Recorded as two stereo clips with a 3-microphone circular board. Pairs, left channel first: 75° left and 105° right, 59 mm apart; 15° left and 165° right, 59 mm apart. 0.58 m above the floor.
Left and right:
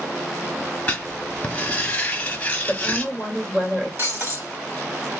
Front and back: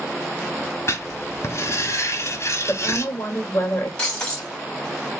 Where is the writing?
15° left, 1.0 m.